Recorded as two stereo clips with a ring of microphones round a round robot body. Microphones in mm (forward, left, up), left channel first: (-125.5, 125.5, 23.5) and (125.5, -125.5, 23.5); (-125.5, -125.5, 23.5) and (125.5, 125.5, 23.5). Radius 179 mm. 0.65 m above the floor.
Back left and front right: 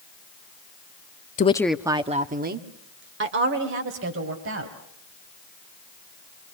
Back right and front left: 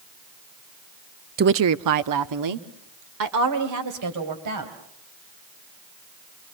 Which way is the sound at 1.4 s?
85° left.